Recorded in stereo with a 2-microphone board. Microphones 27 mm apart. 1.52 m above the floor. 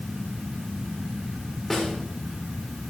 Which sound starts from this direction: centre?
A snare drum, at 1.7 s.